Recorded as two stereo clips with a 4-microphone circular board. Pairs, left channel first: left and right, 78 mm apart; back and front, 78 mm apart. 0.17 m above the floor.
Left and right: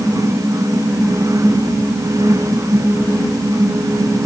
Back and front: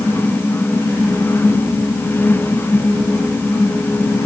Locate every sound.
Only background noise.